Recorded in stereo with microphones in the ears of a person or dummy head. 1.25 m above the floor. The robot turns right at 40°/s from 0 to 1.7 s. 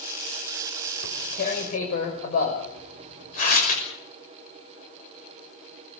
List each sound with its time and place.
1.0 s tearing paper: 75° left (ahead or behind), 6 m; by 3.8 s 50° left (ahead or behind), 6 m